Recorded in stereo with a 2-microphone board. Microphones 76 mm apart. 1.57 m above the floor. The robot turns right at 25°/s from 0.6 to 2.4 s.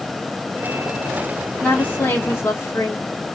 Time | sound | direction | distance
1.6 | a woman speaking | 15° left (ahead or behind) | 0.8 m